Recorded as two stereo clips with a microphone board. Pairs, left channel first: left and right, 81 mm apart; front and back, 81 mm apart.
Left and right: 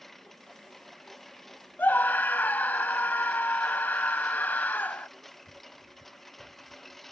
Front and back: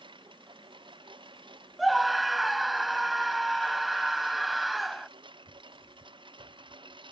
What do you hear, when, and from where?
0.0 s a lawn mower: 175° left
1.8 s a scream: 90° left